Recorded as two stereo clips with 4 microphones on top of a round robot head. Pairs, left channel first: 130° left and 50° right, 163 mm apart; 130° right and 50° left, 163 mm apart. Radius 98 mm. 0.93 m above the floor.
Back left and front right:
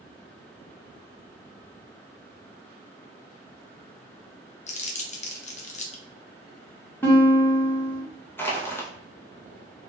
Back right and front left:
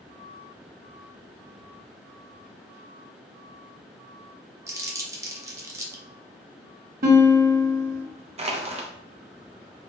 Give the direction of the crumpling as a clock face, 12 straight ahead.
8 o'clock.